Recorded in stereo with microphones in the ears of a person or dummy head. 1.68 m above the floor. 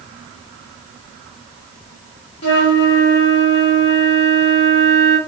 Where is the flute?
40° left (ahead or behind), 1.4 m.